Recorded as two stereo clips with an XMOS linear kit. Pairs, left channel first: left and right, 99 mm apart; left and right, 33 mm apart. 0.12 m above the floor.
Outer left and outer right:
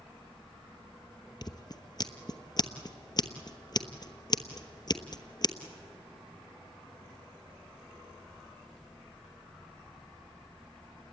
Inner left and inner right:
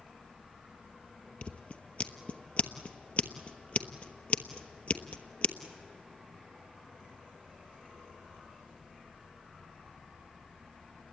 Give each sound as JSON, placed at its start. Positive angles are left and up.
{"t": 1.4, "sound": "scissors", "side_deg": 45, "distance_m": 1.0}